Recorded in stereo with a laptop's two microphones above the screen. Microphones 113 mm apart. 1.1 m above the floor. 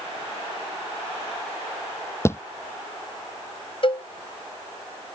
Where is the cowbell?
50° left (ahead or behind).